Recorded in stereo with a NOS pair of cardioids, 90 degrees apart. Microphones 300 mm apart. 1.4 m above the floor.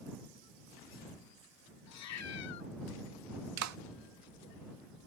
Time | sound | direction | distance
1.9 | a cat meowing | 65° left | ?
3.6 | a clap | 65° right | ?